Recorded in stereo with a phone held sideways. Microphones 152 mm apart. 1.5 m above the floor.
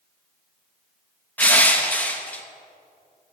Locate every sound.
1.4 s crushing: 10° left (ahead or behind), 1.2 m